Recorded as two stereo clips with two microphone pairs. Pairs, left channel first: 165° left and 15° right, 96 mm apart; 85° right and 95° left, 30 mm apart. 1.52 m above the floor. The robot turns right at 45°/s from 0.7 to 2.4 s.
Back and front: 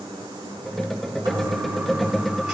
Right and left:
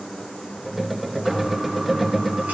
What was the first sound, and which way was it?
A toilet flushing, 20° left.